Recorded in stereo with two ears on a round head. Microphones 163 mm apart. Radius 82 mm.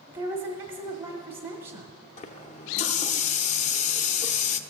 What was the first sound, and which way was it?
A woman speaking, 30° right (ahead or behind).